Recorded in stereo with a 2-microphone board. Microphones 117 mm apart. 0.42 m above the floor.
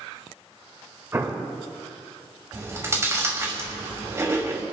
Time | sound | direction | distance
1.1 | an explosion | 20° right (ahead or behind) | 1.3 m
2.5 | chewing | 25° right (ahead or behind) | 2.5 m